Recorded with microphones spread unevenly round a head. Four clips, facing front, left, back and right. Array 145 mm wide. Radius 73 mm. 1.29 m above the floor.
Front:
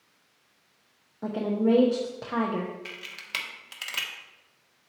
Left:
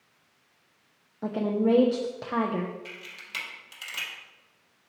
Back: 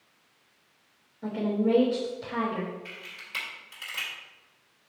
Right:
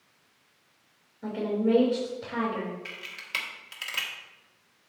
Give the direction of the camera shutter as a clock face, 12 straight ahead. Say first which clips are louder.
Right 2 dB, front 3 dB; 12 o'clock.